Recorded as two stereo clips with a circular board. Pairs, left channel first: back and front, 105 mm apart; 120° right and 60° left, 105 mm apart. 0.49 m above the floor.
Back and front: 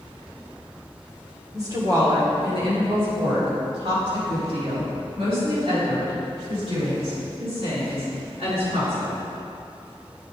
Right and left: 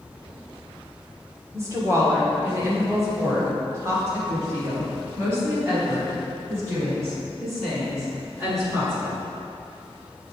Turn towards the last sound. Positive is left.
turn(degrees=-5)